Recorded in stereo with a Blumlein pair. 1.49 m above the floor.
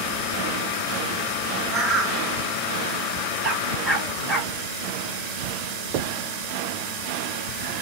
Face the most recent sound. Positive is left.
turn(degrees=-45)